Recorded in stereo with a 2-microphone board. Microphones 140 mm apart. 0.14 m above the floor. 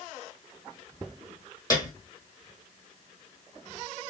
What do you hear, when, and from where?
1.7 s a piano: 25° left (ahead or behind), 1.4 m